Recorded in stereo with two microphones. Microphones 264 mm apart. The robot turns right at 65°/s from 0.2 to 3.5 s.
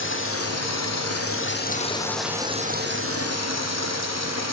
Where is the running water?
50° left, 3.5 m; by 4.5 s 95° right, 3.5 m.